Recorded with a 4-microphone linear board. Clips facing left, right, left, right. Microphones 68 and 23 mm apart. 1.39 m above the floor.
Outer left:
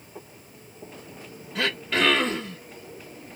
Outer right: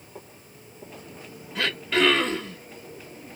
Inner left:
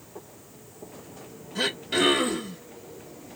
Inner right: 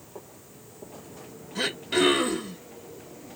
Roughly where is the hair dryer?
No hair dryer in this recording.